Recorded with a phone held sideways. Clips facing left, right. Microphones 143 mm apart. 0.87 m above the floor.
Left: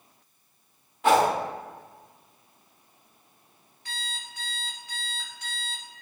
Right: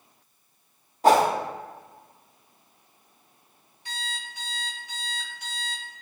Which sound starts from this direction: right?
A whoosh, at 1.0 s.